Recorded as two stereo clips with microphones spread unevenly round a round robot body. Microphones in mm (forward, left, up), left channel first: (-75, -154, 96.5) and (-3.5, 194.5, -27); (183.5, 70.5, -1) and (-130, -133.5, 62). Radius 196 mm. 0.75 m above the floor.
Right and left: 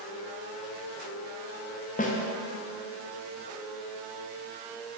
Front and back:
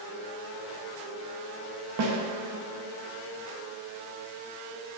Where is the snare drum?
175° left, 0.9 m.